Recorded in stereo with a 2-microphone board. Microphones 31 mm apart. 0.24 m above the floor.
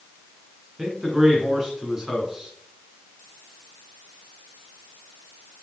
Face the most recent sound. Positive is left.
turn(degrees=-15)  # may be behind; listen again after turning